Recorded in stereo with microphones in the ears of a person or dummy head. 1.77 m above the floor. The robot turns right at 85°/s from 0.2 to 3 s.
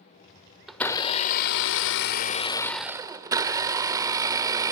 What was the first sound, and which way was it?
A blender, straight ahead.